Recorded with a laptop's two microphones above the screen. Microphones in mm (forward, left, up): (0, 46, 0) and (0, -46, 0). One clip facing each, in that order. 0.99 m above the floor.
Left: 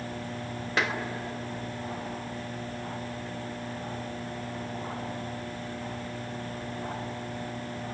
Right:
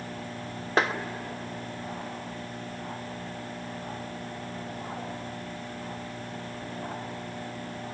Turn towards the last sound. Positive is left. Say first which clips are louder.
# right 4 dB
turn(degrees=-40)  # may be behind; listen again after turning